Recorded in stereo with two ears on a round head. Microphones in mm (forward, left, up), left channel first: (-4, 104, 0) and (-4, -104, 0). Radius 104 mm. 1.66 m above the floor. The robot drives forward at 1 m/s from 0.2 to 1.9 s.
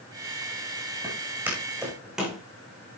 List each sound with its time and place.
1.0 s footsteps: 10° right (ahead or behind), 5.5 m; by 2.4 s centre (ahead or behind), 5 m